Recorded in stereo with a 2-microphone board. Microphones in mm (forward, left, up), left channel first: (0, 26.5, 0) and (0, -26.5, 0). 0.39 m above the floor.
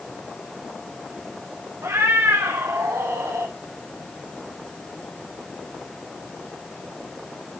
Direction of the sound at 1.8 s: 85° right.